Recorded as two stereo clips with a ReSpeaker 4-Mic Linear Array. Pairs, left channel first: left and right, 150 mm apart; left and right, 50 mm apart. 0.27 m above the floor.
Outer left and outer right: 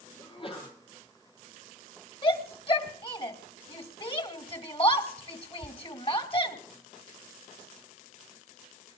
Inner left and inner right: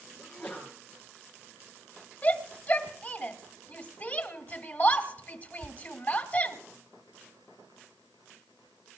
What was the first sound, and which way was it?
A sneeze, 40° left (ahead or behind).